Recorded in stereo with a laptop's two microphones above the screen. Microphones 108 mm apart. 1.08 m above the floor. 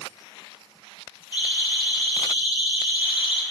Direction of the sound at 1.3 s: 40° left (ahead or behind).